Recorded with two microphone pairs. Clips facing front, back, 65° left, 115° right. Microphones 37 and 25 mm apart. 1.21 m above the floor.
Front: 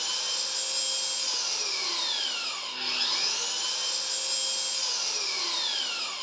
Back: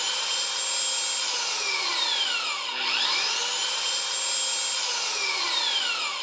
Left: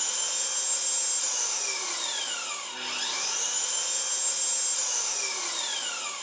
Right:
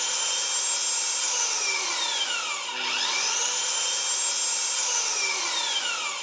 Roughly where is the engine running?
Behind right.